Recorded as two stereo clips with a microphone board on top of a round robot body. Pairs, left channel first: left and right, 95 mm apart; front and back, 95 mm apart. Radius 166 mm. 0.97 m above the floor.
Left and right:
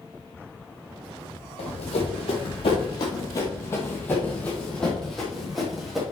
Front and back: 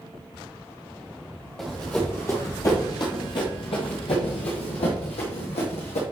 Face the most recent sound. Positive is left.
turn(degrees=-5)